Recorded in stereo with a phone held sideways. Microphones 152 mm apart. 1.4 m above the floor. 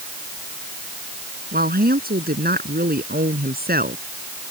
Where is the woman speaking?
85° right.